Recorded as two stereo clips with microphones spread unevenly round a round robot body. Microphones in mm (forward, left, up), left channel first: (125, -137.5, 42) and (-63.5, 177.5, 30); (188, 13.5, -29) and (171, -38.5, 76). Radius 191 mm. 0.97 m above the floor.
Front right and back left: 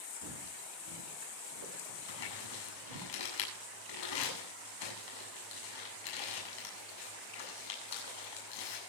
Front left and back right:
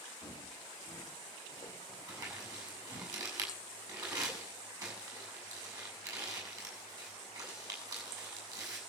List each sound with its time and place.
0.2 s footsteps: 70° left, 9.5 m; by 3.1 s 95° left, 8 m
2.1 s crumpling: 90° right, 7.5 m